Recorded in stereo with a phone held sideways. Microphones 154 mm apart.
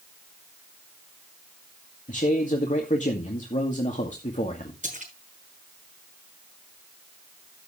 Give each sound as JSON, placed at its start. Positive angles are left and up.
{"t": 2.1, "sound": "a man speaking", "side_deg": 55, "distance_m": 2.0}
{"t": 4.8, "sound": "a splash", "side_deg": -50, "distance_m": 8.0}